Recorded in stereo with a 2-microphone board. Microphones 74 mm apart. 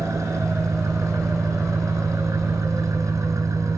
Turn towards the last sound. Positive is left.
turn(degrees=-45)  # may be behind; listen again after turning